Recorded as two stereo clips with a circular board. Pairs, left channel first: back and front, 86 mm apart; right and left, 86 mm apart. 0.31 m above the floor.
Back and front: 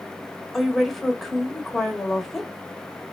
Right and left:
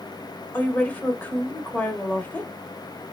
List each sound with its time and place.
0.5 s a woman speaking: 95° right, 1.1 m